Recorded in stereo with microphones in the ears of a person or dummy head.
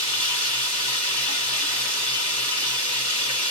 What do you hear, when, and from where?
0.0 s running water: 30° left (ahead or behind), 2 m